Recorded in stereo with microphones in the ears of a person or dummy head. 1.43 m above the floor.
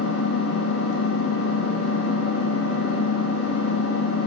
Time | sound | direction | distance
0.0 | an engine running | 75° left (ahead or behind) | 2 m